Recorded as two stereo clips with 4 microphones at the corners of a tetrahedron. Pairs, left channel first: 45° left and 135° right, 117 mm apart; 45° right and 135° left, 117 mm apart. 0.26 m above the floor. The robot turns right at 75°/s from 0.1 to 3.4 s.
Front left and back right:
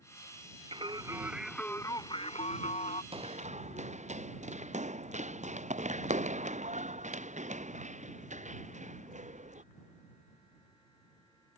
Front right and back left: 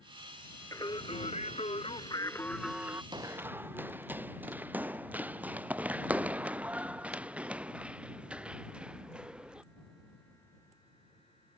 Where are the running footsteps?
175° right; by 9.6 s 145° right.